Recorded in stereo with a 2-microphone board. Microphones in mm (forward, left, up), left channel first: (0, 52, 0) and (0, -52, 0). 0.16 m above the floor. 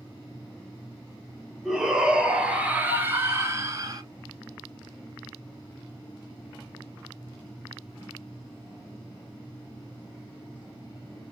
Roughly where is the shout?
Centre.